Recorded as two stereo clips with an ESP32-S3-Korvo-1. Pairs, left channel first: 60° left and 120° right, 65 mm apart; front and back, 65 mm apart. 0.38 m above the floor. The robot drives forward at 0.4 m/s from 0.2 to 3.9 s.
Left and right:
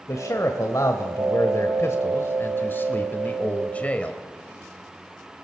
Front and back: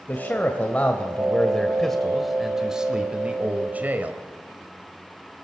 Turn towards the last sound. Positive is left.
turn(degrees=125)